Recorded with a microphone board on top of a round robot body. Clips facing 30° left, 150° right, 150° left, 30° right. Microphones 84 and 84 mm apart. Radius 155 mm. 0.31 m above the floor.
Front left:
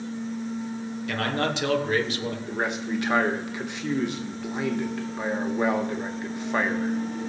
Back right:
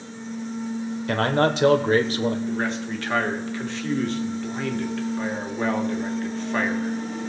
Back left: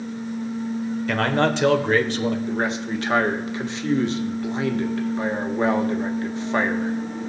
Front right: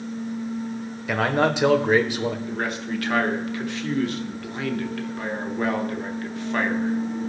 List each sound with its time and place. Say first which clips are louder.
1.1 s a man speaking: back right 6 dB, even; 110° right, 1.4 m
2.5 s a man speaking: back right 1 dB, back left 3 dB; 100° left, 1.6 m